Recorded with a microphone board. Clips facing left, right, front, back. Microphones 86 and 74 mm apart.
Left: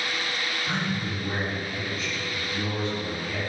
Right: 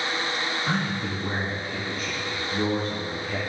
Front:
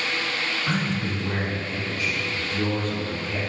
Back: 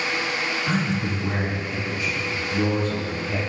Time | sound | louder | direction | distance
0.7 | a man speaking | right 1 dB, back 2 dB | 80° right | 1.9 m